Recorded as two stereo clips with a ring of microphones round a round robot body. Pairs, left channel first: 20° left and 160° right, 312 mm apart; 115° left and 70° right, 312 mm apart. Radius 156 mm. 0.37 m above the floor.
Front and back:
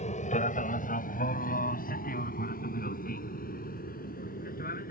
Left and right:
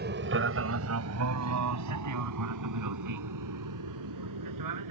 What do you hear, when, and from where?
0.0 s an aircraft: 35° right; by 4.9 s 40° right